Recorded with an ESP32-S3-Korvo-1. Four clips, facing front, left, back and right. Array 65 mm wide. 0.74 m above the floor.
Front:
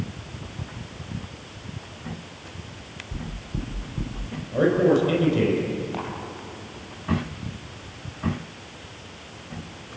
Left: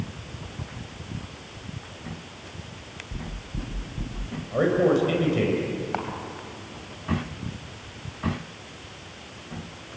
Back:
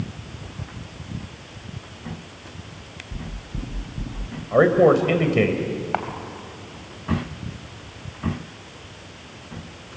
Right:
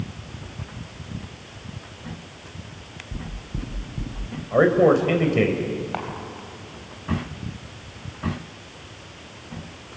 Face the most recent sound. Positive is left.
turn(degrees=175)